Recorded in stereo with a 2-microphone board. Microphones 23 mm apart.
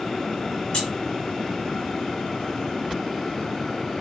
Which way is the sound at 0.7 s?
45° left (ahead or behind).